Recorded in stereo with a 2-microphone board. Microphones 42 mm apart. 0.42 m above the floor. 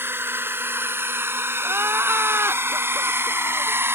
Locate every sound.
0.0 s a drone: 60° right (ahead or behind); by 4.0 s 65° right (ahead or behind)
1.6 s crying: 80° right